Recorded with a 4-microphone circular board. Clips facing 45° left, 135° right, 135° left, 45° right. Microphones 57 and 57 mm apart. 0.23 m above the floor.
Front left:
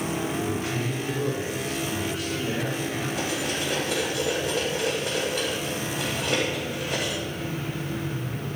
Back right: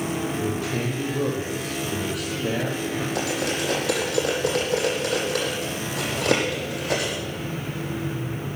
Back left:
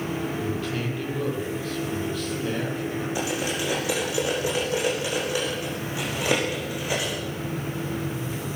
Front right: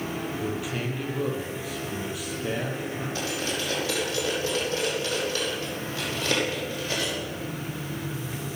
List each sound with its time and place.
0.3 s a man speaking: 125° right, 8 m
3.1 s cutlery clinking: 150° right, 7.5 m